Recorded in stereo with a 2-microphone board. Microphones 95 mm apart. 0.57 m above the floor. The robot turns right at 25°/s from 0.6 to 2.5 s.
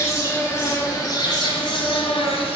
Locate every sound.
0.0 s an insect: 35° left, 1.5 m; by 2.6 s 80° left, 1.5 m